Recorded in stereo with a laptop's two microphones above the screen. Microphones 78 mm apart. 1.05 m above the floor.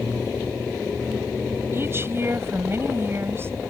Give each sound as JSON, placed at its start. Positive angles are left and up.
{"t": 1.7, "sound": "a woman speaking", "side_deg": -35}